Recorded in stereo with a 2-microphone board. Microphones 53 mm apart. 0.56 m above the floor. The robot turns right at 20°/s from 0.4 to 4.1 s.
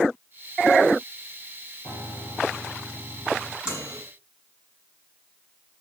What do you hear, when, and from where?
1.8 s a piano: 100° left, 6 m; by 3.5 s 135° left, 6 m
3.6 s a microwave: 15° right (ahead or behind), 5.5 m; by 4.0 s 20° right (ahead or behind), 5.5 m